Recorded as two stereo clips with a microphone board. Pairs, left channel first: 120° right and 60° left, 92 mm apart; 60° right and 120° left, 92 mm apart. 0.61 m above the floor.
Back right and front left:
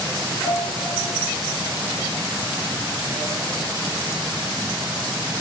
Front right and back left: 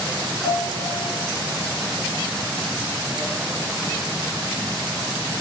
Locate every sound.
0.4 s a piano: 50° right, 4 m